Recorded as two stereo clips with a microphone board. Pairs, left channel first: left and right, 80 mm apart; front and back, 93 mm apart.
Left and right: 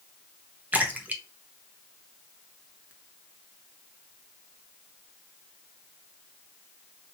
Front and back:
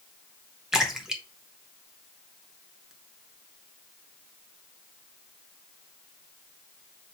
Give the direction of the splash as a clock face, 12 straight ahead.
3 o'clock.